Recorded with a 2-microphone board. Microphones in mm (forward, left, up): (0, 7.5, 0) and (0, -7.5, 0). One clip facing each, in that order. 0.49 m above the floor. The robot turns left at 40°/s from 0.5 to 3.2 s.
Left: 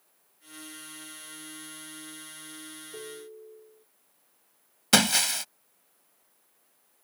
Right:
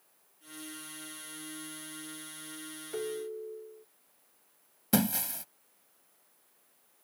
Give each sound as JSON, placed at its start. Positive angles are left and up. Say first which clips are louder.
{"t": 2.9, "sound": "a ringtone", "louder": "right 9 dB", "side_deg": -75}
{"t": 4.9, "sound": "breaking glass", "louder": "left 8 dB", "side_deg": 65}